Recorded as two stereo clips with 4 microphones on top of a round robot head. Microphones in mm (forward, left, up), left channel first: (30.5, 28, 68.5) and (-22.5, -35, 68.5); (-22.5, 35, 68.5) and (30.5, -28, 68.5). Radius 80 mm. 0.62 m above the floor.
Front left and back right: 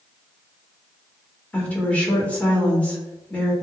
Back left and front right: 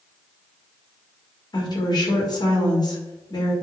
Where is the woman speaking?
120° left, 1.4 m.